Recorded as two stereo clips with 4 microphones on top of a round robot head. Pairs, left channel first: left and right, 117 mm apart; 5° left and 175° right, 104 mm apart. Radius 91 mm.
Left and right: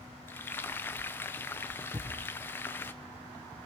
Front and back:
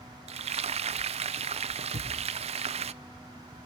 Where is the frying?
165° left, 0.7 m.